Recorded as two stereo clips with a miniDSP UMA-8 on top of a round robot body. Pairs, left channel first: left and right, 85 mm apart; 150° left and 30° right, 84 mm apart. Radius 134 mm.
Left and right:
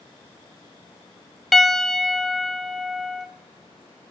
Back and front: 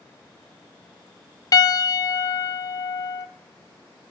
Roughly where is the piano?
Behind.